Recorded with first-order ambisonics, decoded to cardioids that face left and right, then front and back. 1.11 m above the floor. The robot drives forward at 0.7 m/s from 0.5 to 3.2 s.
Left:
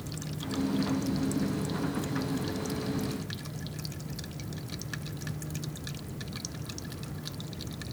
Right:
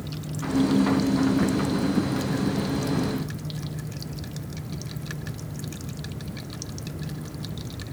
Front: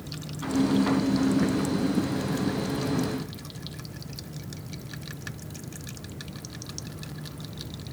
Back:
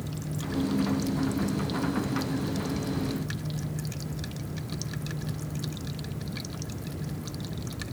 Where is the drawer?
I don't hear a drawer.